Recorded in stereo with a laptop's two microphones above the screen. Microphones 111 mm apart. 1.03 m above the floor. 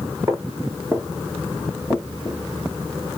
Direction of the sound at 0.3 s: 30° right (ahead or behind).